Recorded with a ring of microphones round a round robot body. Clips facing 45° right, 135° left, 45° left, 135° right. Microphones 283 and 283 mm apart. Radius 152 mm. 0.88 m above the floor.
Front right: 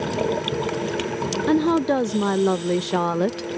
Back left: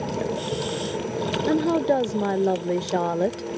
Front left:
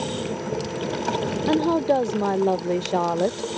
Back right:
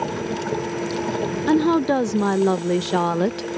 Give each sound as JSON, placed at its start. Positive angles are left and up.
{"t": 1.5, "sound": "a woman speaking", "azimuth_deg": -100}